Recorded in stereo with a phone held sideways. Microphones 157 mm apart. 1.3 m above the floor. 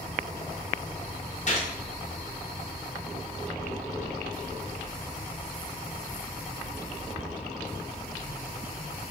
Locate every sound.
1.5 s a gunshot: 50° left (ahead or behind), 0.8 m